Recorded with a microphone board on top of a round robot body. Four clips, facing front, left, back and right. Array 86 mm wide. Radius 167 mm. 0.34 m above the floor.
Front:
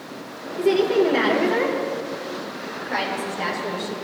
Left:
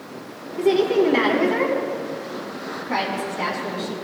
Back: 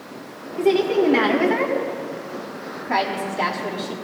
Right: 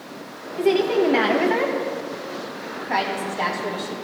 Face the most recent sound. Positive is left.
turn(degrees=-135)